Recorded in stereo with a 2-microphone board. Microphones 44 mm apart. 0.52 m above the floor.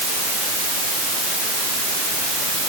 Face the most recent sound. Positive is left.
No sound to turn to.